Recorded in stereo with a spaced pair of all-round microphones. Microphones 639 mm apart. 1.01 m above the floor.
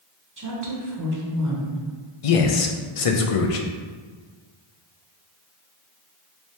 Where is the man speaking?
60° left (ahead or behind), 0.5 m.